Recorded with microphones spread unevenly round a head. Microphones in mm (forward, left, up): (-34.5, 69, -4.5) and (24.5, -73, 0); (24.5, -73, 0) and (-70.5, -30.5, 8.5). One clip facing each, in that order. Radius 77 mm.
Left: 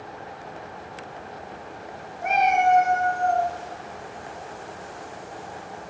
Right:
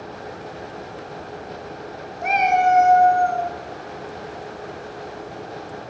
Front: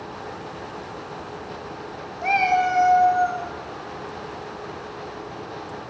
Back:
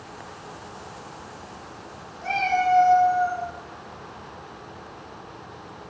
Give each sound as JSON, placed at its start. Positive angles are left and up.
{"t": 2.2, "sound": "a cat meowing", "azimuth_deg": -50, "distance_m": 1.5}